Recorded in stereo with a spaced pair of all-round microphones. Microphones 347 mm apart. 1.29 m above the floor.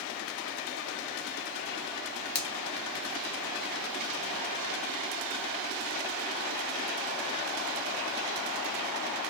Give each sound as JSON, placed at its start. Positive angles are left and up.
{"t": 2.4, "sound": "a finger snap", "side_deg": 70, "distance_m": 0.7}